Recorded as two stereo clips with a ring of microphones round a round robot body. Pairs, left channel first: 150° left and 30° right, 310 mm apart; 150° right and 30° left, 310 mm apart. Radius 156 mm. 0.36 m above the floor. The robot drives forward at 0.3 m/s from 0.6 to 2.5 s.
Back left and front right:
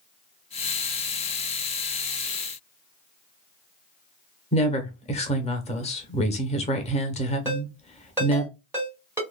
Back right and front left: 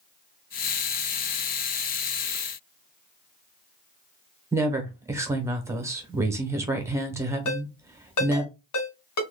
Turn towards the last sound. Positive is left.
turn(degrees=-110)